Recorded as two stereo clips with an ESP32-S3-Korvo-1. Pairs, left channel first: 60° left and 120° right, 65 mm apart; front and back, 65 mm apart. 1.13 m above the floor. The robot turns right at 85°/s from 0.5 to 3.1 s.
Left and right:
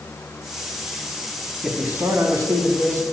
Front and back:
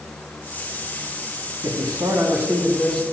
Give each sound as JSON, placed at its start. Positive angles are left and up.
{"t": 1.6, "sound": "a man speaking", "azimuth_deg": 165, "distance_m": 3.0}